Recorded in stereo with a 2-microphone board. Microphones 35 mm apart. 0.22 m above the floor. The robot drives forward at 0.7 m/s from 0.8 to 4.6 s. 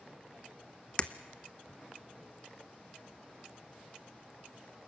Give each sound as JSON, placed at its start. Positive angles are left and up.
{"t": 1.0, "sound": "breaking glass", "side_deg": 30, "distance_m": 0.7}